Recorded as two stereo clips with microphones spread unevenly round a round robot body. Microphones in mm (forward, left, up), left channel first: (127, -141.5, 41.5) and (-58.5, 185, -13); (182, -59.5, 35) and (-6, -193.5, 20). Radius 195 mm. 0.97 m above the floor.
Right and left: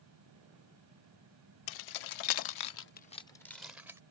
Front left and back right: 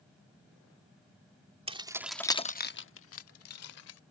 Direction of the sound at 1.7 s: 75° right.